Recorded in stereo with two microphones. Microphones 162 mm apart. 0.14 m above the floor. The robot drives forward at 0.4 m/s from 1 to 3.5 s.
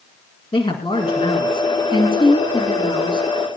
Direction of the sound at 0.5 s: 35° left (ahead or behind).